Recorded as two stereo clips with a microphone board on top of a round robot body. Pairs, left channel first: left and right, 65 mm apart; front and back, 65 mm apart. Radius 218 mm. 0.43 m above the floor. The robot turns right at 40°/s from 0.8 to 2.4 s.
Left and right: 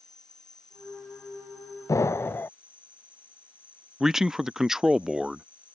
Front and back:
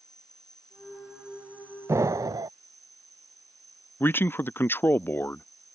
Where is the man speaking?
10° right.